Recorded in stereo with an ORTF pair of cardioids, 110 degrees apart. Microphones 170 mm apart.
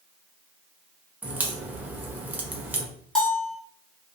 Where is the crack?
10° right, 0.6 m.